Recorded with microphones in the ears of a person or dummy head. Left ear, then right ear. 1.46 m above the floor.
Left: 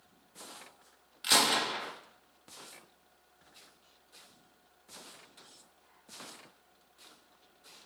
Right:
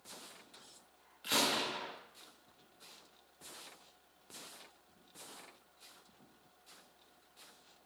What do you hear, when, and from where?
1.2 s a gunshot: 40° left (ahead or behind), 0.8 m